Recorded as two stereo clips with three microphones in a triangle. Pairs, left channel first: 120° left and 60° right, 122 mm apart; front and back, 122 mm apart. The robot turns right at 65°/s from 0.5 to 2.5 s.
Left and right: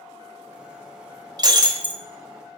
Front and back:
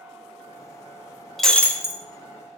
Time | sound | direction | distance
1.4 | breaking glass | 90° right | 0.8 m